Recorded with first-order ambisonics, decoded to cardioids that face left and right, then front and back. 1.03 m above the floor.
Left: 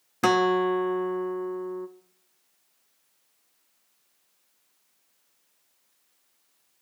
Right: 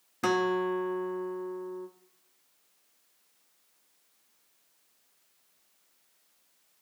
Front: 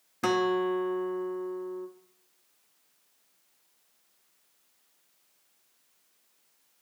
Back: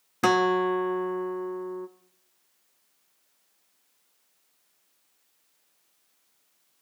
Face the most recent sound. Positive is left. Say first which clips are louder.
# left 6 dB, back 4 dB
turn(degrees=130)